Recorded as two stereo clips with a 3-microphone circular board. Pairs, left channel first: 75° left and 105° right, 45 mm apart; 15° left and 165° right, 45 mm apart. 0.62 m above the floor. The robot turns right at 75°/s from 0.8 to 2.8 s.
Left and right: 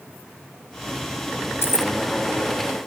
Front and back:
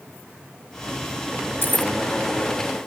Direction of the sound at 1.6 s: 50° left.